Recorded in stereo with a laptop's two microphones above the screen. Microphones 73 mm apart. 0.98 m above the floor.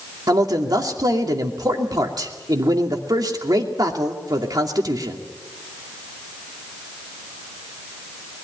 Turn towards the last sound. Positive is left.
turn(degrees=-60)  # may be behind; listen again after turning